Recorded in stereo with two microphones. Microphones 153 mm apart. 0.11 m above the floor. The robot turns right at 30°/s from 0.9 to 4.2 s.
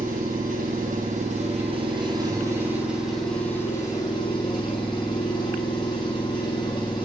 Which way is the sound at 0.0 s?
65° right.